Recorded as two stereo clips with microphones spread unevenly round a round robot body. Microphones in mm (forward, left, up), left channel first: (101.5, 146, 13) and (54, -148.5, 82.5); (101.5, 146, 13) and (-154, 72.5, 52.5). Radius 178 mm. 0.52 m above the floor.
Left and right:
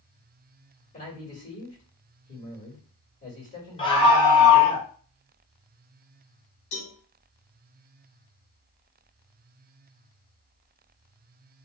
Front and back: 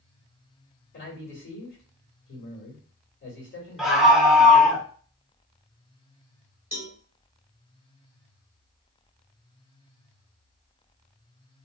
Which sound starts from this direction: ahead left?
A man speaking, at 0.9 s.